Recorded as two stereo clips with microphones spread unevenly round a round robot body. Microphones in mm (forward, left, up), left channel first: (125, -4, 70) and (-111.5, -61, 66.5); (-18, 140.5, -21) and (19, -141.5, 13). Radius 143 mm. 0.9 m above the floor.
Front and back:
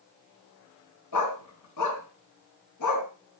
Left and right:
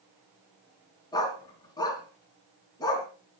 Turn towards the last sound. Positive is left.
turn(degrees=20)